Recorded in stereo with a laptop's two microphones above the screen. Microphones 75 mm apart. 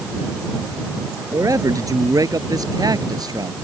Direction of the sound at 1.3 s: 45° right (ahead or behind).